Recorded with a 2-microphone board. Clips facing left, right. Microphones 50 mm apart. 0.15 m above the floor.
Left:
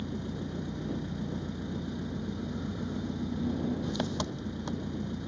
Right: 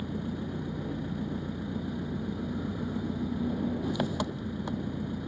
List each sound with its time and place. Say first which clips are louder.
0.0 s an engine running: right 2 dB; 10° right (ahead or behind)